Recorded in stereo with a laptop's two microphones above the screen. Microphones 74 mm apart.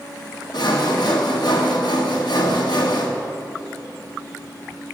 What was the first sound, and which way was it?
Sawing, 70° left (ahead or behind).